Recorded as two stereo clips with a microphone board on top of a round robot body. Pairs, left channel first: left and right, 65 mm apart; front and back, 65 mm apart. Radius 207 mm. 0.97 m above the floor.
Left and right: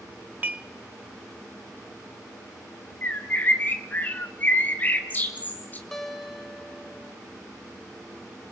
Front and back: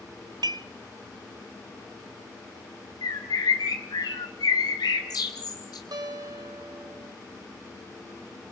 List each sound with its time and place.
0.4 s dishes clattering: 155° right, 0.5 m
3.0 s a bird: 30° left, 0.9 m
5.9 s a guitar: 175° left, 3 m